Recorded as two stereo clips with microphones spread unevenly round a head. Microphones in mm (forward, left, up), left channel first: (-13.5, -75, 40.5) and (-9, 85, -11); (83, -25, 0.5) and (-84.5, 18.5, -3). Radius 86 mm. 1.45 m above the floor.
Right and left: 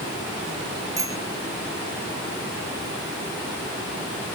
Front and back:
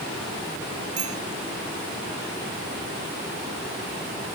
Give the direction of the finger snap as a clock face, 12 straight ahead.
No finger snap in this recording.